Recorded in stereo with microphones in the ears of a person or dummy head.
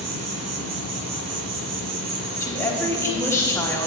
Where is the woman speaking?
15° left (ahead or behind), 1.1 m.